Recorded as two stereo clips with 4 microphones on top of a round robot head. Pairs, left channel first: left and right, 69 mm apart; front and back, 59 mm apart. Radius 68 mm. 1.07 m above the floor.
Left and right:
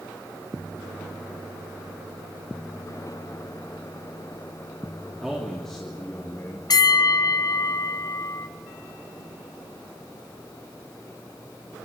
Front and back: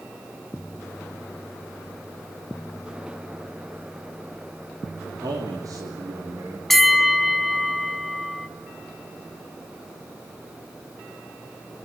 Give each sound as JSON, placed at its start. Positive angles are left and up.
{"t": 5.2, "sound": "a man speaking", "azimuth_deg": -175, "distance_m": 3.0}
{"t": 6.7, "sound": "a bell", "azimuth_deg": 90, "distance_m": 1.5}